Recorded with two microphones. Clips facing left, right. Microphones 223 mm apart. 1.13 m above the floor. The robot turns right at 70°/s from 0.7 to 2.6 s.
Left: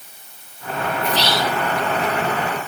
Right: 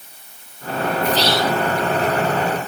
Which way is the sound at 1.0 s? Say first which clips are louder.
Right 3 dB; 70° left.